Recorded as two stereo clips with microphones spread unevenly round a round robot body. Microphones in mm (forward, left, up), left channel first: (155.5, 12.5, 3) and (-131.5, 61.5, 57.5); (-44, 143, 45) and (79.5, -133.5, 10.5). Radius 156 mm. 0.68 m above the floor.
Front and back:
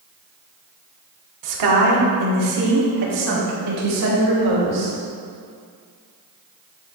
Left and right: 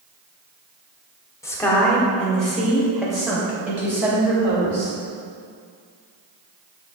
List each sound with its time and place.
1.4 s a woman speaking: 160° right, 1.7 m; by 4.9 s 150° right, 3.5 m